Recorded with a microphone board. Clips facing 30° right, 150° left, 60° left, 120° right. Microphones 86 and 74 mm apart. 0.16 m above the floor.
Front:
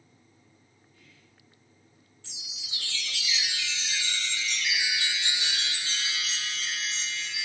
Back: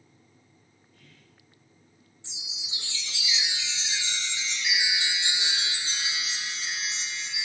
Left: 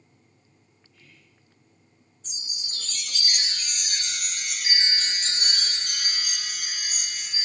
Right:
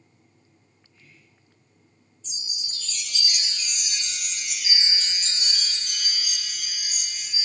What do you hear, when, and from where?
0.9 s whispering: 170° left, 4 m
2.2 s a chime: 85° left, 0.7 m